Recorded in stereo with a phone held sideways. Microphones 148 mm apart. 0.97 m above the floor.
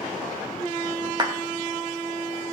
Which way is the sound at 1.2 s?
30° right (ahead or behind).